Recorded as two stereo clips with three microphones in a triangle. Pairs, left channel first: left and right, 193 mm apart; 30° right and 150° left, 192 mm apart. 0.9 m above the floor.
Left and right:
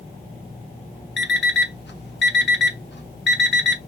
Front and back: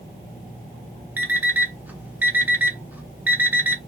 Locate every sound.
1.2 s an alarm clock: 70° left, 0.5 m